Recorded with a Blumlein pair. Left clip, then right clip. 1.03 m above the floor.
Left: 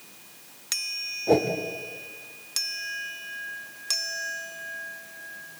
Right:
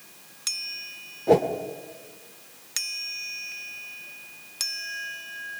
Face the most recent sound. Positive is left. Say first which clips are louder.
# right 2 dB
turn(degrees=-10)